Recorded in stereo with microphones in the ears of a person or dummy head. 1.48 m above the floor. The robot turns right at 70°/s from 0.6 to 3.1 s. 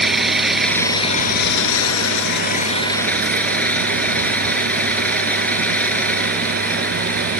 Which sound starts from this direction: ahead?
An engine running, at 0.0 s.